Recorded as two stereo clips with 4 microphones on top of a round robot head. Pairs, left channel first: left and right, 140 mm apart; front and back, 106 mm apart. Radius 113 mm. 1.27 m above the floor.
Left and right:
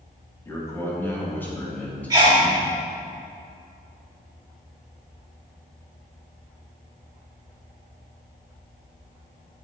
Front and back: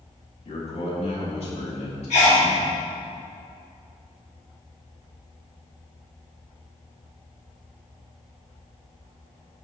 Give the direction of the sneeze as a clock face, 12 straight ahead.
1 o'clock.